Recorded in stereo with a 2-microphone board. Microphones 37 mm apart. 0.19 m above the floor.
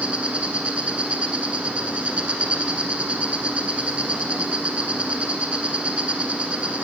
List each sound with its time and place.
0.0 s an insect: 35° right (ahead or behind), 1.2 m